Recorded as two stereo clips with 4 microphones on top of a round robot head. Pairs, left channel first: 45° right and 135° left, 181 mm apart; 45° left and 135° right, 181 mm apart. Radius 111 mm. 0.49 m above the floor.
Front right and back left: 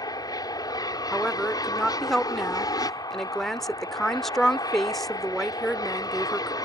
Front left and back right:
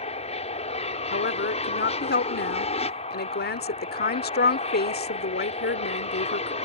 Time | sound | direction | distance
0.0 | an aircraft | 15° left | ?
1.1 | a woman speaking | 45° left | ?